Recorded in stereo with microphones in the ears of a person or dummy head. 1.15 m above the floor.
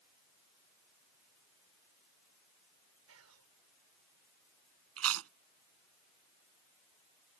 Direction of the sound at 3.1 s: 75° right (ahead or behind).